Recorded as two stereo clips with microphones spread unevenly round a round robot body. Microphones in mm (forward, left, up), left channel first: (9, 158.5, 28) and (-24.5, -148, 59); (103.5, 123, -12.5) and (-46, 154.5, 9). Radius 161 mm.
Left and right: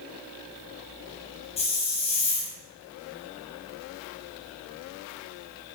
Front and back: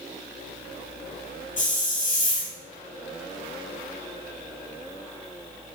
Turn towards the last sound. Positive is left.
turn(degrees=15)